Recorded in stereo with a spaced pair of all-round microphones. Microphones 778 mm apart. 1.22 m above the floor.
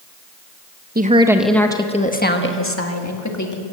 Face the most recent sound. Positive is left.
turn(degrees=25)  # may be behind; listen again after turning